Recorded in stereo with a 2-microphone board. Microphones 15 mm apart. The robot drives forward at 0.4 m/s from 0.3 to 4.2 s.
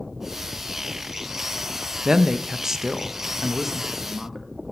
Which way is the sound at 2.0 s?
55° right (ahead or behind).